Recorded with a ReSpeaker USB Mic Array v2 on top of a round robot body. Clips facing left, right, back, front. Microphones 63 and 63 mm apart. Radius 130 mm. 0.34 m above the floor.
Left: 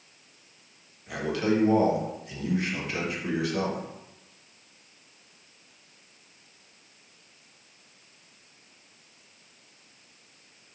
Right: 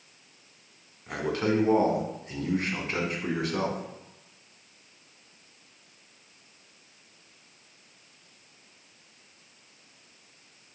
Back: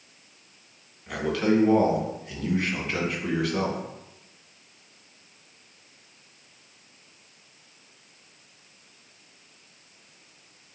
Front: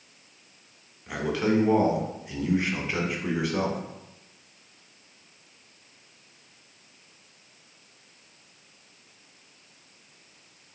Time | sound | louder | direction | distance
1.1 | a man speaking | left 1 dB, back 2 dB | 70° right | 1.5 m